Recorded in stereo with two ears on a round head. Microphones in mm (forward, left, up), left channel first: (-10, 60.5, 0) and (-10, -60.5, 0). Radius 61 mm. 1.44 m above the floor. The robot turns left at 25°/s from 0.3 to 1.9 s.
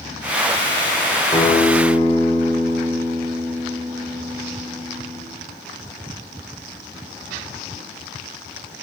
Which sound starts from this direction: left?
A guitar, at 1.3 s.